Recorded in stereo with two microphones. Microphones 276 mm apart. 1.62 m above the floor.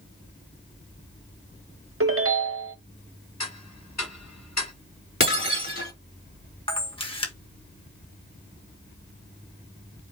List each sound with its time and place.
2.0 s a ringtone: 55° right (ahead or behind), 0.8 m
3.4 s ticking: 85° left, 1.6 m
5.2 s breaking glass: 55° left (ahead or behind), 3 m
6.7 s a camera shutter: 20° left (ahead or behind), 1.3 m